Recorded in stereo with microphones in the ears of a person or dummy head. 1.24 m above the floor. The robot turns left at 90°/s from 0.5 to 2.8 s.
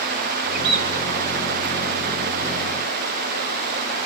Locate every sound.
0.5 s a bird: 50° right, 2.5 m; by 0.9 s 80° right, 2.5 m